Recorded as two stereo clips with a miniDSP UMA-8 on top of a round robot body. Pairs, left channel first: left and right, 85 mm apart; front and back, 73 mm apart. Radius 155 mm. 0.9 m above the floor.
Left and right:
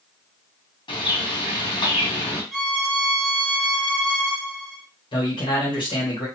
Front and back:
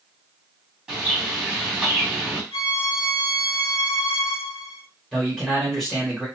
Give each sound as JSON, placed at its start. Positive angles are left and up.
{"t": 0.9, "sound": "a bird", "azimuth_deg": 100, "distance_m": 2.5}
{"t": 2.5, "sound": "a violin", "azimuth_deg": 5, "distance_m": 2.0}
{"t": 5.1, "sound": "a man speaking", "azimuth_deg": 90, "distance_m": 1.9}